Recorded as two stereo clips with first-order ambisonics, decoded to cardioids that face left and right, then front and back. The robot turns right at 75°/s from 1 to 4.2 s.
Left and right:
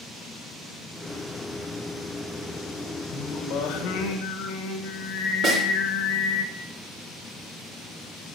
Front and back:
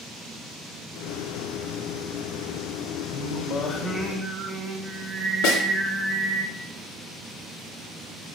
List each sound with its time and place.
3.1 s singing: 35° left, 1.9 m; by 6.4 s 115° left, 1.9 m
5.4 s a snare drum: 35° right, 3 m